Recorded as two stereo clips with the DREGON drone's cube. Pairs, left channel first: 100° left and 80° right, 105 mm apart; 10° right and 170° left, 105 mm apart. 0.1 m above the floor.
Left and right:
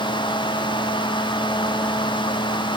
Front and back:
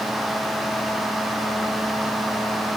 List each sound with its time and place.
Only background noise.